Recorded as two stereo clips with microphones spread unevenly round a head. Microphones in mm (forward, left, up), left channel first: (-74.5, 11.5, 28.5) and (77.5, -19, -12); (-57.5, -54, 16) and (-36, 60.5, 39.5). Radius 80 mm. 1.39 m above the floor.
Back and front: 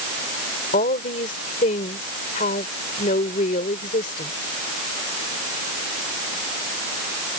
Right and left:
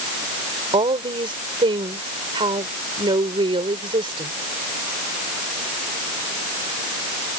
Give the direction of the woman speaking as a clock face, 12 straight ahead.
8 o'clock.